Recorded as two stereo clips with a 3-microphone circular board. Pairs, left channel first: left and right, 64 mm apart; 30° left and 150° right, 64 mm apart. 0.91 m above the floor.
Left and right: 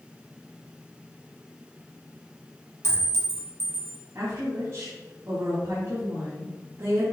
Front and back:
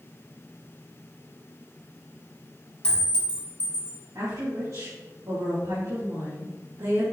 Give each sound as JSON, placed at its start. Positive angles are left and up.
{"t": 2.8, "sound": "a clink", "azimuth_deg": -40, "distance_m": 1.8}
{"t": 4.2, "sound": "a woman speaking", "azimuth_deg": -125, "distance_m": 3.0}